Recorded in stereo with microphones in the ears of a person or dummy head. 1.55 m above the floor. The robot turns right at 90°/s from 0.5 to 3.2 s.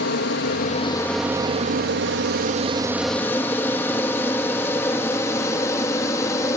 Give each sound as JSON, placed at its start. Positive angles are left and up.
{"t": 0.0, "sound": "an aircraft", "side_deg": 55}